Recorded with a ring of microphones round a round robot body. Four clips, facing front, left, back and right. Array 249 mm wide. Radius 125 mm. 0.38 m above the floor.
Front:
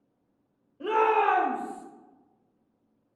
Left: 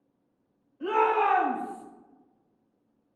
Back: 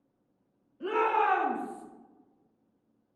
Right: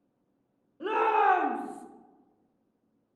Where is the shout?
50° right, 1.4 m; by 1.9 s 100° right, 0.9 m.